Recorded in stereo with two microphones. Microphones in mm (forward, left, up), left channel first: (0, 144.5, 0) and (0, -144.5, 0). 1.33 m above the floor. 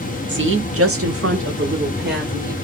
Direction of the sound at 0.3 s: 35° right (ahead or behind).